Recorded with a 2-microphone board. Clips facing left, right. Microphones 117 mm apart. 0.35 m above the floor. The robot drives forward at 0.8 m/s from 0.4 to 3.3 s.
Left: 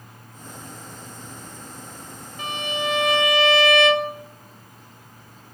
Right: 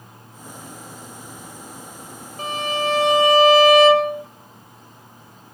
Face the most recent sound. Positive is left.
turn(degrees=-35)  # may be behind; listen again after turning